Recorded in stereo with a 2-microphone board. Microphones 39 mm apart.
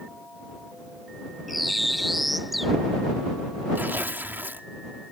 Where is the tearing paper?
55° right (ahead or behind).